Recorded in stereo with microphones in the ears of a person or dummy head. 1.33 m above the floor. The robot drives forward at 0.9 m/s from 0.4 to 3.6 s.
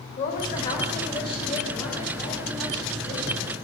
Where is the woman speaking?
40° left (ahead or behind), 1.4 m; by 3.5 s 15° left (ahead or behind), 4 m.